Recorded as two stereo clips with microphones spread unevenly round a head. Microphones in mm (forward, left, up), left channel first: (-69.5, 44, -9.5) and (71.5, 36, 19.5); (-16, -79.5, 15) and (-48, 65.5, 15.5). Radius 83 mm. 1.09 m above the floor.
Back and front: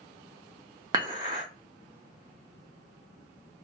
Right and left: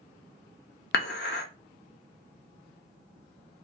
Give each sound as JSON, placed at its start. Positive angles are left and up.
{"t": 0.9, "sound": "dishes clattering", "azimuth_deg": -60, "distance_m": 0.5}